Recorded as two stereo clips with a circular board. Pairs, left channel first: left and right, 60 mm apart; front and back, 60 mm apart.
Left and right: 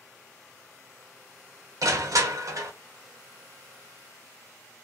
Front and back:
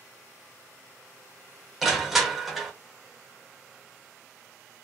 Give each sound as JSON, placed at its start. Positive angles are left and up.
{"t": 1.8, "sound": "crushing", "azimuth_deg": -90, "distance_m": 0.7}